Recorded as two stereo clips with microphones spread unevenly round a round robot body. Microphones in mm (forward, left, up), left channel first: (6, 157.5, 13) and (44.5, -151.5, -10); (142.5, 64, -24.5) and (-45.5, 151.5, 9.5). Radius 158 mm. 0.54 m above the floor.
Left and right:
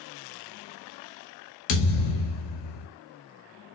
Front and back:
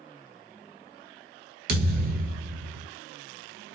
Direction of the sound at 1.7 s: 125° left.